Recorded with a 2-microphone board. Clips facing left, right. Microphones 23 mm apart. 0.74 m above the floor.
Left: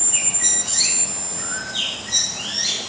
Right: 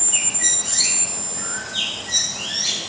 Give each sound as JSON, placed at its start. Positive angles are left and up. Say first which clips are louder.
{"t": 0.1, "sound": "a bird", "louder": "right 1 dB", "side_deg": -10, "distance_m": 4.5}